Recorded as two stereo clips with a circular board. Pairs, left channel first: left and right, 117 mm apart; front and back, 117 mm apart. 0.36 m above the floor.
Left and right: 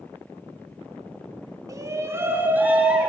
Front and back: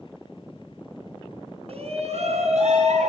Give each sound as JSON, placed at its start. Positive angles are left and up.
{"t": 1.7, "sound": "a shout", "azimuth_deg": -150, "distance_m": 3.5}